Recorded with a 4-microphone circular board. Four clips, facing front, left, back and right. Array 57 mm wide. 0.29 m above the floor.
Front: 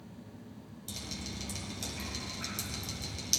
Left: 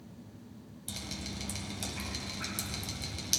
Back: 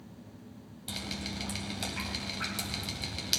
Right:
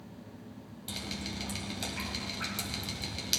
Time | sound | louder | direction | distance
0.9 | dripping | right 3 dB, back 5 dB | 160° right | 1.2 m